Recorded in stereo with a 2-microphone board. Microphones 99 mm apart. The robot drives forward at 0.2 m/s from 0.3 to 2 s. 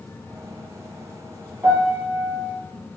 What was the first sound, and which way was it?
A piano, 15° right (ahead or behind).